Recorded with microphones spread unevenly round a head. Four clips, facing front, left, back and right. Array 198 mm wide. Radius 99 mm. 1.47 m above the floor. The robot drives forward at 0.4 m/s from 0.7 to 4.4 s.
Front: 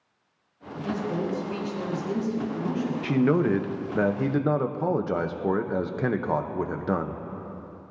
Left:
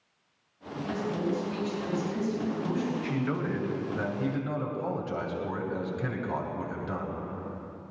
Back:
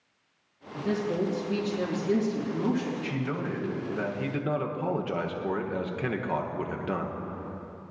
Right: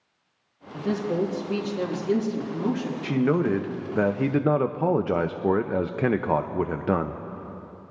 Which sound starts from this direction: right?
A woman speaking, at 0.7 s.